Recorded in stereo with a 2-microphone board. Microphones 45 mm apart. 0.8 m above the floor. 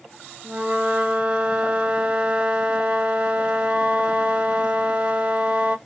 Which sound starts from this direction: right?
A flute, at 0.4 s.